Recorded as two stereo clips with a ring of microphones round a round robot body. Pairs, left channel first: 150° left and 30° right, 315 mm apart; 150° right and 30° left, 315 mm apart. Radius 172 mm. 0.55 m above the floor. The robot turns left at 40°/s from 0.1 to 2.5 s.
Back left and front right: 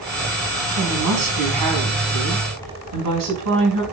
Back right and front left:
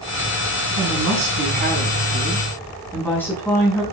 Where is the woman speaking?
5° left, 5 m; by 3.8 s 65° right, 5 m.